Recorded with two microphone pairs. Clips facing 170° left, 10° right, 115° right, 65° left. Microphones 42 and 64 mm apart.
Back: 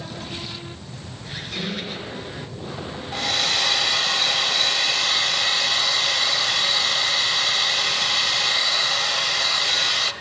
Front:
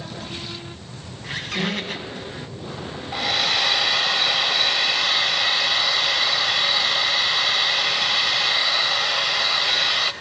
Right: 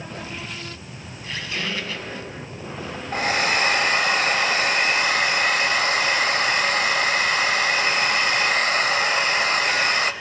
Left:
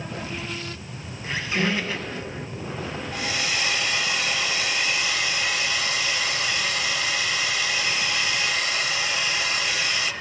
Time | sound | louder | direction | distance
1.2 | a squeak | front 5 dB, left 4 dB | 5° left | 1.7 m
3.1 | a hair dryer | front 1 dB, right 8 dB | 85° right | 0.5 m